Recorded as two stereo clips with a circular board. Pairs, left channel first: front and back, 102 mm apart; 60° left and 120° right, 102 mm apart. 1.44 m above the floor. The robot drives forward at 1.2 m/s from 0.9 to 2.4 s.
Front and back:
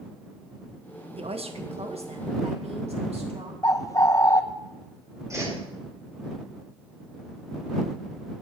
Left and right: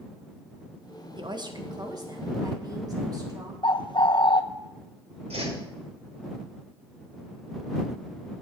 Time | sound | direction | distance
1.2 | a woman speaking | 160° right | 1.1 m
3.6 | a bird | 45° left | 0.7 m
5.3 | a whoosh | 120° right | 5.5 m